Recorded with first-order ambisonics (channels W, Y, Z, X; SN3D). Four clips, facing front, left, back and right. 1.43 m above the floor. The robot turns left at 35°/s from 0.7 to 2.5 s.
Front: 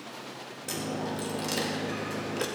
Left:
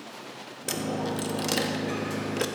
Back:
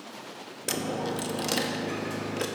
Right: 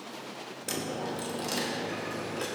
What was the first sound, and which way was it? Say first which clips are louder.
A dropped coin: left 4 dB, back 3 dB; 150° left.